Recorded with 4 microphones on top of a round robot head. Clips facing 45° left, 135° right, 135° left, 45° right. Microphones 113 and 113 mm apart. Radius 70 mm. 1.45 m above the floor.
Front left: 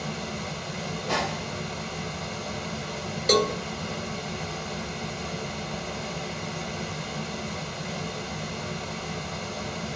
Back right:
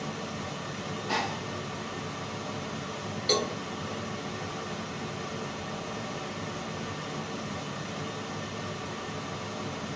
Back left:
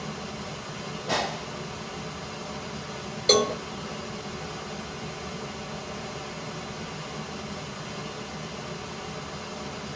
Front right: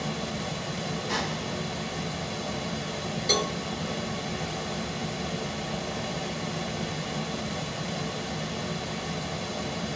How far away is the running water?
About 0.8 m.